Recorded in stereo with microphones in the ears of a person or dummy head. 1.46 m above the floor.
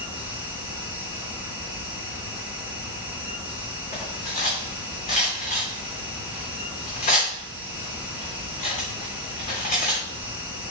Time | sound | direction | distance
0.0 | a fan | 25° left (ahead or behind) | 5 m
3.9 | cutlery clinking | 35° left (ahead or behind) | 3 m